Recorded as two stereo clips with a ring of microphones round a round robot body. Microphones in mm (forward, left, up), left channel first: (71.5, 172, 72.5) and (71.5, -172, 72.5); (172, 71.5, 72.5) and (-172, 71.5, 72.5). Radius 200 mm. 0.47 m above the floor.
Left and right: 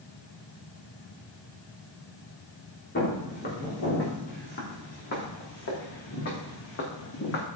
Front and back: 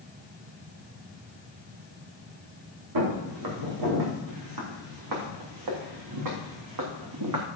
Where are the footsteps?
155° left, 5 m; by 7.5 s 150° left, 2.5 m.